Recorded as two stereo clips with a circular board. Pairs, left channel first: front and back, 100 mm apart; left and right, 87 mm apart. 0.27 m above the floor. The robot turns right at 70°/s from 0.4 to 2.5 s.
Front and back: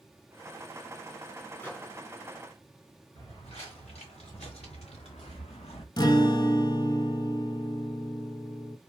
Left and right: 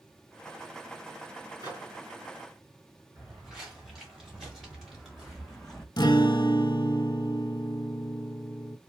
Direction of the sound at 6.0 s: 50° left.